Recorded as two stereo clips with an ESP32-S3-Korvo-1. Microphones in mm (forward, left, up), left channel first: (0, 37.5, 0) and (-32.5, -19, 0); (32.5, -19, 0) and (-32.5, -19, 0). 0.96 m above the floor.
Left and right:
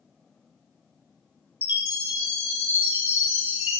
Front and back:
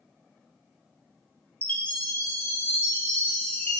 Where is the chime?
65° right, 2.5 m.